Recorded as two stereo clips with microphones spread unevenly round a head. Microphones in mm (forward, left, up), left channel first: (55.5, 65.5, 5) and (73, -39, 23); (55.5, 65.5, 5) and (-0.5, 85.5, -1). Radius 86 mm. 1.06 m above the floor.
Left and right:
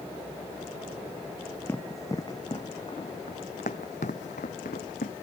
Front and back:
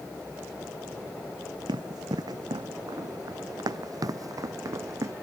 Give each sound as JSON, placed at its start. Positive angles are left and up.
{"t": 1.7, "sound": "running footsteps", "azimuth_deg": 180}